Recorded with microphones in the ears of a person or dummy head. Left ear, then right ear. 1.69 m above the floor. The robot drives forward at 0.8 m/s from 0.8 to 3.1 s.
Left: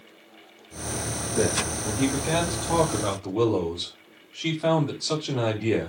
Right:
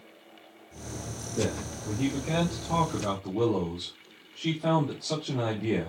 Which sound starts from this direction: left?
A man speaking, at 1.4 s.